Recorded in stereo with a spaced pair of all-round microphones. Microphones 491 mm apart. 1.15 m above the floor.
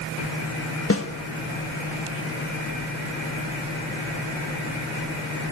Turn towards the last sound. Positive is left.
turn(degrees=25)  # may be behind; listen again after turning